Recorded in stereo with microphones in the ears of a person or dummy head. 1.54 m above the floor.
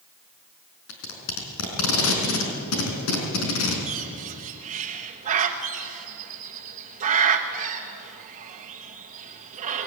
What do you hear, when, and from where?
0.9 s tape being pulled: 70° left (ahead or behind), 4.5 m
3.9 s a bird: 40° right (ahead or behind), 1.3 m